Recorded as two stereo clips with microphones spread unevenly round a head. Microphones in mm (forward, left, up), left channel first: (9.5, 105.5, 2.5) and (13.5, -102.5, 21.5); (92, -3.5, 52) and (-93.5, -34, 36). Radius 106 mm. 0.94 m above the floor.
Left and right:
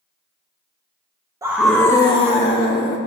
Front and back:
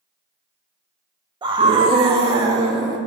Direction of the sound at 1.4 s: 160° right.